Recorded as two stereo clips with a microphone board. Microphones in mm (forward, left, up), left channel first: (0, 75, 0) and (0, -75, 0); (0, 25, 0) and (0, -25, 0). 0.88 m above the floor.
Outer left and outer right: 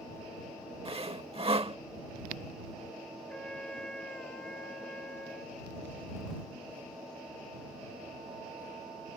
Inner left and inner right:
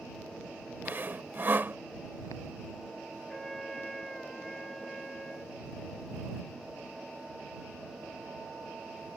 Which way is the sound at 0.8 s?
40° right (ahead or behind).